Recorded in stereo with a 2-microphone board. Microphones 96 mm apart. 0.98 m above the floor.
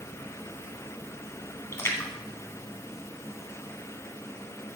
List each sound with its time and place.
1.7 s a splash: 30° left (ahead or behind), 1.8 m